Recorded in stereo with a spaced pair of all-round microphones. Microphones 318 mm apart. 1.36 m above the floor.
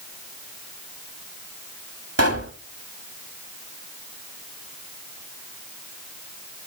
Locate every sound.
2.2 s a pop: 50° right (ahead or behind), 1.9 m